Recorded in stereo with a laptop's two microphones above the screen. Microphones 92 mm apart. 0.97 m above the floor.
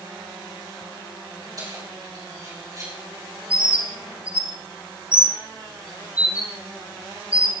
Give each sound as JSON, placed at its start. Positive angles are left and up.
{"t": 1.6, "sound": "keys jangling", "side_deg": -40, "distance_m": 5.0}
{"t": 3.5, "sound": "a bird", "side_deg": -15, "distance_m": 4.5}